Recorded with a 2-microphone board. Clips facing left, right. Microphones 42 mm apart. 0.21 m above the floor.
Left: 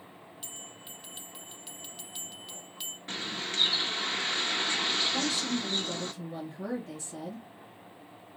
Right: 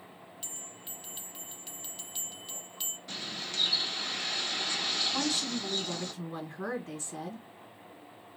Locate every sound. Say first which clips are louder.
0.4 s a bell: left 2 dB; 5° left (ahead or behind), 0.8 m
3.1 s a bird: left 5 dB; 45° left (ahead or behind), 0.7 m
5.1 s a woman speaking: left 2 dB; 45° right (ahead or behind), 1.5 m